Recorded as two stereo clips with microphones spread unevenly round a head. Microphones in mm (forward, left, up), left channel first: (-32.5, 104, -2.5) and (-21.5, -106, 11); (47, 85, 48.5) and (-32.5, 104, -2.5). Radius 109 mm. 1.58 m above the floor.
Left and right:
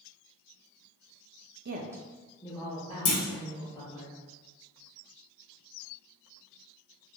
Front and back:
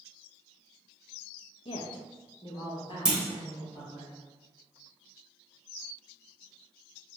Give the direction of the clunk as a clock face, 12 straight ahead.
10 o'clock.